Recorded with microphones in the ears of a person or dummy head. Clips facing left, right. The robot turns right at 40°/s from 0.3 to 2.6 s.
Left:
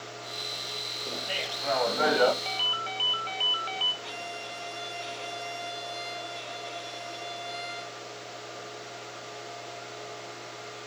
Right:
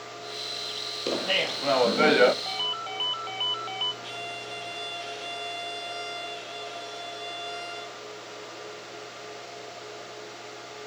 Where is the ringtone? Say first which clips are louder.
Even; 30° left (ahead or behind), 0.8 m; by 3.9 s 25° left (ahead or behind), 0.8 m.